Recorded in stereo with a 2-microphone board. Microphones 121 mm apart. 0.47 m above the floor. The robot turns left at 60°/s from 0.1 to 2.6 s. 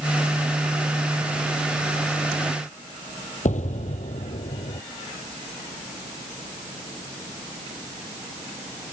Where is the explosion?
85° left.